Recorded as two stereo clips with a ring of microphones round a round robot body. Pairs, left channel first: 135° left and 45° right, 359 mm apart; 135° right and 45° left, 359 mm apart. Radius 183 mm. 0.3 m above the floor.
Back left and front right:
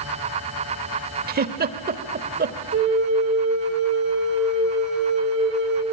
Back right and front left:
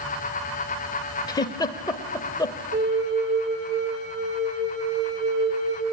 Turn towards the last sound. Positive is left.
turn(degrees=0)